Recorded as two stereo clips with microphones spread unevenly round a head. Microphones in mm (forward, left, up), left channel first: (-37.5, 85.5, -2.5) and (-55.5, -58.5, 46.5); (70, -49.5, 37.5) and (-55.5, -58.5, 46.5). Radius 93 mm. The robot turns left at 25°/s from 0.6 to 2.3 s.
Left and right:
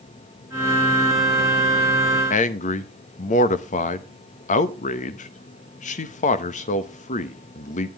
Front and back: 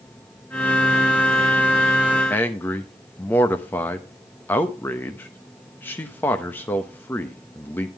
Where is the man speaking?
80° left, 0.9 m.